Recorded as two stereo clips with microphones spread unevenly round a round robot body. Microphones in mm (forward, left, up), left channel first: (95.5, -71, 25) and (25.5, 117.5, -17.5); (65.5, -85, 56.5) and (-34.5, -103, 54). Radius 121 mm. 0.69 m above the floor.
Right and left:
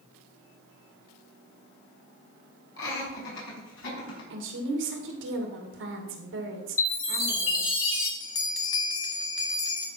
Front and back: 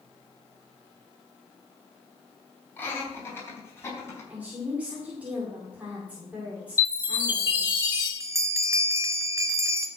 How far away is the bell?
About 1.0 m.